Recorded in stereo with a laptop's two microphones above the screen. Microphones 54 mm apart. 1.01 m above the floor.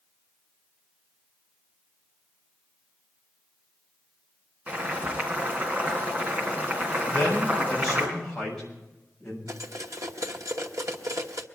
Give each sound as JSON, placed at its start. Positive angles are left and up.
{"t": 4.7, "sound": "boiling", "side_deg": -25, "distance_m": 3.5}
{"t": 7.1, "sound": "a man speaking", "side_deg": 5, "distance_m": 6.5}
{"t": 9.5, "sound": "cutlery clinking", "side_deg": -75, "distance_m": 1.2}